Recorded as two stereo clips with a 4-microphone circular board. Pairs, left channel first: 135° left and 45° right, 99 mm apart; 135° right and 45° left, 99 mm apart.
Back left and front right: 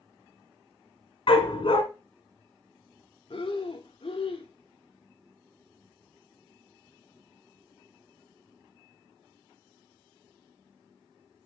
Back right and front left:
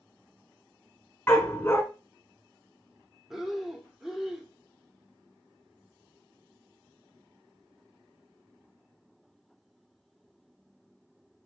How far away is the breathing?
About 1.3 m.